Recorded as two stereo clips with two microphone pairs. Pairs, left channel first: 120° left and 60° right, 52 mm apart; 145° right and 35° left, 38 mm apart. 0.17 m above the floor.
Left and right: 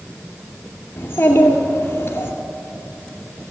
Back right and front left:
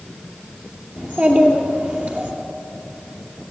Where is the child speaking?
75° left, 2.5 m.